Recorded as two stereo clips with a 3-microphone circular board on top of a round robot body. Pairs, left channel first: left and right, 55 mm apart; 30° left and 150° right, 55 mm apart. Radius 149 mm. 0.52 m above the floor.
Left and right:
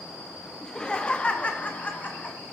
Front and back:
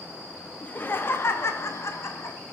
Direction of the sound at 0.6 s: 25° left.